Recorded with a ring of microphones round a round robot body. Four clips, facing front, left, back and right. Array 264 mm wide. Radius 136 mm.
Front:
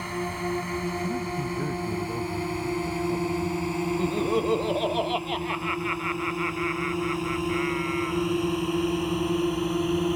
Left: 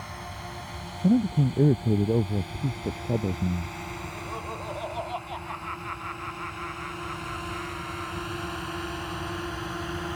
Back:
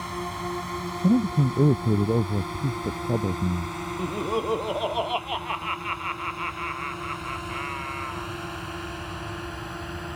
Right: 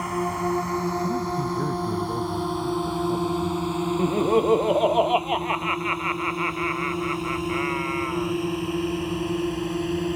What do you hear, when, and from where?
0.0 s a drone: 75° right; by 10.2 s 40° right
1.0 s a man speaking: 140° left
4.0 s laughter: 80° right